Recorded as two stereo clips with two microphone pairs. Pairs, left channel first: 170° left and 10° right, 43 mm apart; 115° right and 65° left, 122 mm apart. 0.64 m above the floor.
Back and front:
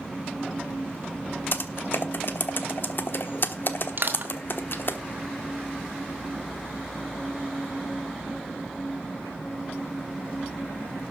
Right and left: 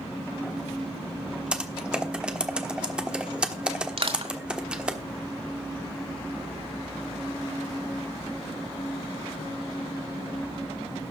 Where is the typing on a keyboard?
150° left, 1.1 m.